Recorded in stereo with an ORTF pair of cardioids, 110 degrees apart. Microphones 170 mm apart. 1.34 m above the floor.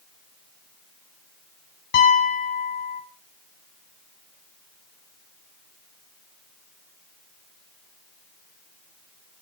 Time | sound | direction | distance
1.9 | a piano | 60° left | 6.5 m